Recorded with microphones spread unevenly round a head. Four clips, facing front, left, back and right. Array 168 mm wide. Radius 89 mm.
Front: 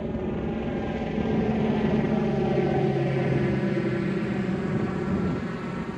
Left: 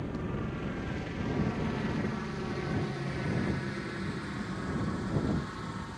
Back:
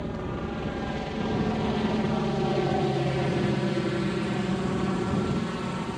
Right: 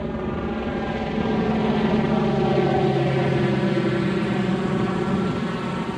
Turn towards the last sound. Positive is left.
turn(degrees=-90)